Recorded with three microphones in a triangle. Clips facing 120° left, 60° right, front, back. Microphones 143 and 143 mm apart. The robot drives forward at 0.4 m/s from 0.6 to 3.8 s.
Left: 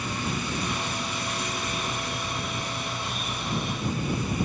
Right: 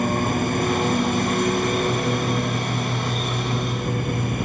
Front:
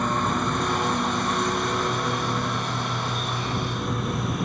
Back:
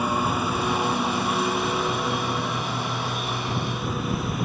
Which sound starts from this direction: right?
A lawn mower, at 0.0 s.